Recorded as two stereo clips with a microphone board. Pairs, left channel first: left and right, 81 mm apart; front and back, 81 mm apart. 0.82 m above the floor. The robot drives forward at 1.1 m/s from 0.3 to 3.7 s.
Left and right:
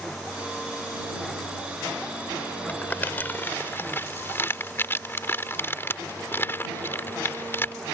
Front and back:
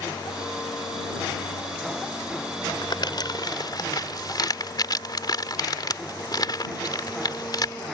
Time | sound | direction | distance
2.7 | crumpling | 20° left | ?